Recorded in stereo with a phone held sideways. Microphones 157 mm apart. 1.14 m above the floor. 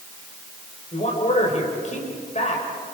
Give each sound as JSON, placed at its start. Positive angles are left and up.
{"t": 0.9, "sound": "a man speaking", "side_deg": 50, "distance_m": 4.0}